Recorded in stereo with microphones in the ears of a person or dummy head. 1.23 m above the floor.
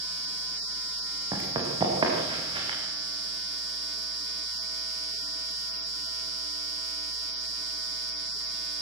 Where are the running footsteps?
25° right (ahead or behind), 6.5 m; by 2.8 s 30° right (ahead or behind), 7 m.